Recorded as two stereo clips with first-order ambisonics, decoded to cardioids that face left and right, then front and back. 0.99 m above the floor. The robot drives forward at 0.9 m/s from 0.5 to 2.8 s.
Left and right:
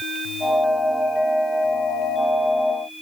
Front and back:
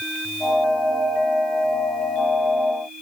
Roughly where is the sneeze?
I don't hear a sneeze.